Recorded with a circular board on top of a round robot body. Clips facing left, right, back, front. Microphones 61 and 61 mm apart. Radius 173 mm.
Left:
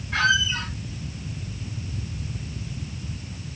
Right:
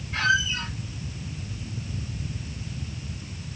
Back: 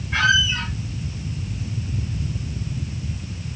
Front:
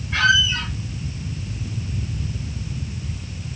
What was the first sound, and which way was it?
A squeak, 100° left.